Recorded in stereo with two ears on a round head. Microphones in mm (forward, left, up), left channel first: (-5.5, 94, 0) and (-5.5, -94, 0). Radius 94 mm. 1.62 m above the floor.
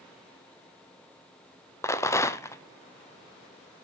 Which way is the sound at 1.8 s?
15° left (ahead or behind).